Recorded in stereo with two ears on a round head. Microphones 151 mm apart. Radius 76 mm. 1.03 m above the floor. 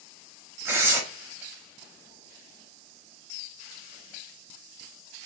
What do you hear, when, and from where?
0.7 s tearing paper: 15° right (ahead or behind), 1.0 m